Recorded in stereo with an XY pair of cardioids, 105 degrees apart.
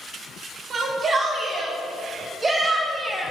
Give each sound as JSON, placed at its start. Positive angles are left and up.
{"t": 0.7, "sound": "a shout", "azimuth_deg": -55, "distance_m": 2.0}